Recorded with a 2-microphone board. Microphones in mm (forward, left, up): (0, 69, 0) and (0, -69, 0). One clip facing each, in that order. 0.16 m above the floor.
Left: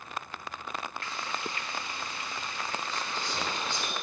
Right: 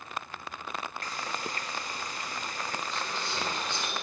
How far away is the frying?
About 0.7 m.